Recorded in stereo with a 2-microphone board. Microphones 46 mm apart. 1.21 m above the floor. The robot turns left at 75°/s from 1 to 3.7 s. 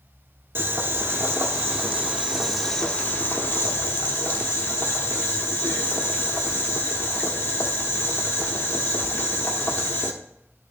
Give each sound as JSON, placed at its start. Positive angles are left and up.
{"t": 0.6, "sound": "boiling", "azimuth_deg": -65, "distance_m": 1.2}